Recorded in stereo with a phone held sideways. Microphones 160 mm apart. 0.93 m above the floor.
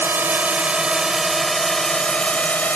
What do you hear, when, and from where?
0.0 s a drone: 10° right (ahead or behind); by 2.8 s 10° left (ahead or behind)